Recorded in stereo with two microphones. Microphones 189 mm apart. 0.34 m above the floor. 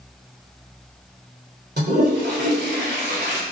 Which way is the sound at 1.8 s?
60° right (ahead or behind).